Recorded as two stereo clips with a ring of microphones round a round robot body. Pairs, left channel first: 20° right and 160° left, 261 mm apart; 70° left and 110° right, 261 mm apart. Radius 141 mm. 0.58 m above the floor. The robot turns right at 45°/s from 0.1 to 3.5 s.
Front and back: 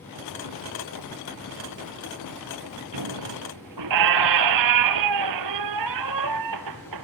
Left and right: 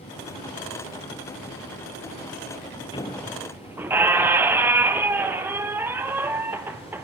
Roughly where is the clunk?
No clunk in this recording.